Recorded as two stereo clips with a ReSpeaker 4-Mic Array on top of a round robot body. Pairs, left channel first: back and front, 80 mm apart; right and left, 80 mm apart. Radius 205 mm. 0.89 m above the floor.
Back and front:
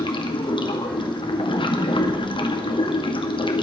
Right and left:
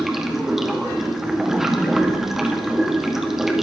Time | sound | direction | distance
0.0 | running water | 175° left | 2 m